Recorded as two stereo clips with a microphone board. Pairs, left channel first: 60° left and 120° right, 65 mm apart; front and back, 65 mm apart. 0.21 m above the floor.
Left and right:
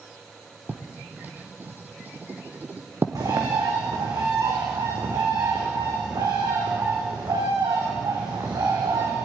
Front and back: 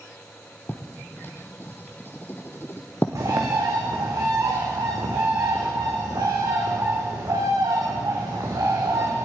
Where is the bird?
150° right, 3.5 m.